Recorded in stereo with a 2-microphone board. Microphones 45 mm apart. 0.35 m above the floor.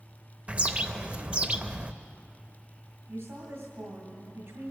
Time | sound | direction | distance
0.5 | a bird | 25° right (ahead or behind) | 0.5 m
3.1 | a woman speaking | 60° right (ahead or behind) | 2.5 m